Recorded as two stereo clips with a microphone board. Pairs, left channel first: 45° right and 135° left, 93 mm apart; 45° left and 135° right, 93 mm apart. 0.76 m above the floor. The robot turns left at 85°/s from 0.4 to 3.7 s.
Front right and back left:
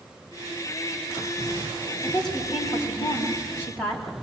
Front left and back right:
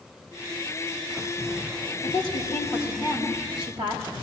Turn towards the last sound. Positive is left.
turn(degrees=-125)